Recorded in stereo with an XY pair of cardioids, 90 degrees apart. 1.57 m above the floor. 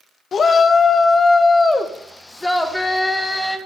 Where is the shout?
55° left, 1.0 m; by 3.6 s 10° left, 2 m.